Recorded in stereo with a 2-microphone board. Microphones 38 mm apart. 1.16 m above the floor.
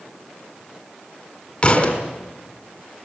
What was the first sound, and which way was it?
A thud, 40° left (ahead or behind).